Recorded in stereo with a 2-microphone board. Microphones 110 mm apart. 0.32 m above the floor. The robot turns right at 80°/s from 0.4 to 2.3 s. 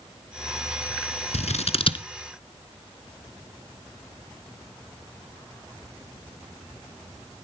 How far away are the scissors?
About 0.9 m.